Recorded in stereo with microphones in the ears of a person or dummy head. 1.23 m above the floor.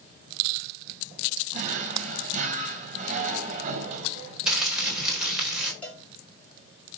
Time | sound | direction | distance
1.5 | a drawer | 45° right (ahead or behind) | 3.5 m
4.5 | crumpling | 5° right (ahead or behind) | 4.5 m
5.8 | a cowbell | 5° left (ahead or behind) | 4.5 m